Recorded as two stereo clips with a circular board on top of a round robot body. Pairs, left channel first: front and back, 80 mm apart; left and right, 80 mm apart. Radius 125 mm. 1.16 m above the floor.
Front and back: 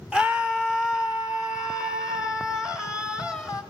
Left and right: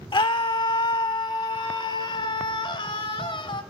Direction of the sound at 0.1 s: 105° left.